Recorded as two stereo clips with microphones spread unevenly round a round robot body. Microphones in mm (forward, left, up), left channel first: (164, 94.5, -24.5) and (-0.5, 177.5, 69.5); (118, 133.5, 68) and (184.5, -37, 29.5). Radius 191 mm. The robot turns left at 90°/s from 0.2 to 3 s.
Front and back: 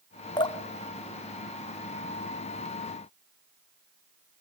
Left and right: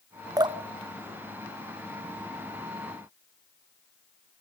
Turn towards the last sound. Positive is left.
turn(degrees=110)